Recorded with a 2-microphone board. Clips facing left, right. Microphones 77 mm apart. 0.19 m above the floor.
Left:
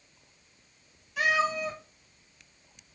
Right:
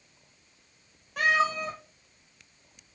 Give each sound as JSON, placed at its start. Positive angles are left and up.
{"t": 1.2, "sound": "a cat meowing", "side_deg": -50, "distance_m": 2.0}